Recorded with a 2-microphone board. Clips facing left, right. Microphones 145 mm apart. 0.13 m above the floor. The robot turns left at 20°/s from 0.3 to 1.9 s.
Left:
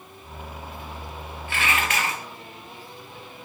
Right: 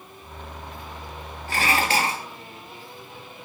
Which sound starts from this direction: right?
Dishes clattering, at 1.5 s.